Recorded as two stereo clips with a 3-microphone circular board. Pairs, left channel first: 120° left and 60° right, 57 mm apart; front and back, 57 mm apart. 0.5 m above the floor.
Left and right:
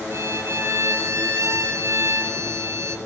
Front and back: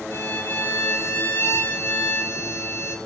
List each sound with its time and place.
0.1 s a violin: 40° right, 2.5 m